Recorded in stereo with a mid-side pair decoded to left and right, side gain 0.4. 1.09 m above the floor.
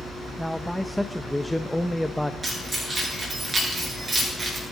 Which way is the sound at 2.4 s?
25° right.